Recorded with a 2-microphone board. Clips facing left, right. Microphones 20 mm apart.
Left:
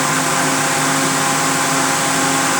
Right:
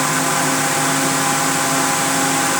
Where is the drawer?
No drawer in this recording.